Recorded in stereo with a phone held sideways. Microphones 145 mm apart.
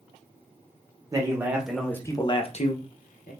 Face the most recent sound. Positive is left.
turn(degrees=75)  # may be behind; listen again after turning